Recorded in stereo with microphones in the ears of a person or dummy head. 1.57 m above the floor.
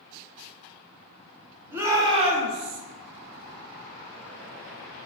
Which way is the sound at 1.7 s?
10° right (ahead or behind).